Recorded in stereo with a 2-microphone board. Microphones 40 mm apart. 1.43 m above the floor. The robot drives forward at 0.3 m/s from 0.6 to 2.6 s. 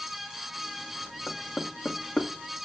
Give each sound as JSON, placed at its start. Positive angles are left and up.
{"t": 1.3, "sound": "knocking", "side_deg": 40, "distance_m": 1.5}